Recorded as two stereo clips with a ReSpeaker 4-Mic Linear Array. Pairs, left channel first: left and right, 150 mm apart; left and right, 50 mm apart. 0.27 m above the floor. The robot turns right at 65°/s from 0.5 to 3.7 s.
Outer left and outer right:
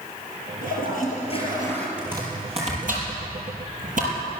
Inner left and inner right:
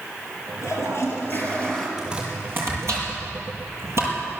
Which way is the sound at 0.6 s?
90° left.